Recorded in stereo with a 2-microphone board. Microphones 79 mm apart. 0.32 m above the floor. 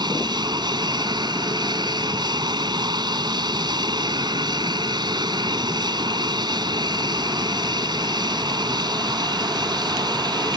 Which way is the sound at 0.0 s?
60° right (ahead or behind).